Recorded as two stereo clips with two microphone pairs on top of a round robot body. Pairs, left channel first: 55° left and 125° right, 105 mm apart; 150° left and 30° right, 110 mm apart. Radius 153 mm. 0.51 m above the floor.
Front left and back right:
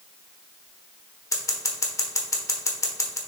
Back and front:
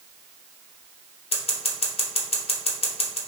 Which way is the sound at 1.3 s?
115° left.